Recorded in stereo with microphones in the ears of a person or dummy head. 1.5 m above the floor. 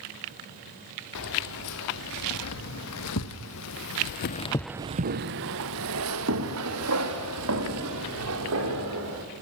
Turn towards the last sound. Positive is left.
turn(degrees=-85)